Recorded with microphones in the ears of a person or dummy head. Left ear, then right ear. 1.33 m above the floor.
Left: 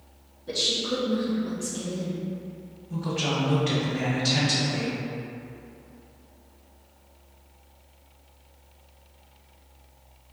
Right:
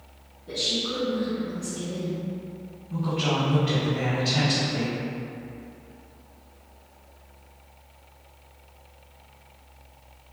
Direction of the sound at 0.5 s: 35° left (ahead or behind).